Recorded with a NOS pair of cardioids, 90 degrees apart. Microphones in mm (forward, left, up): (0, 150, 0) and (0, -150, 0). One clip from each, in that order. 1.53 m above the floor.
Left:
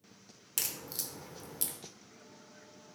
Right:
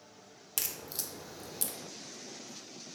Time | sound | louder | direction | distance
0.6 | a crack | even | 10° right | 0.9 m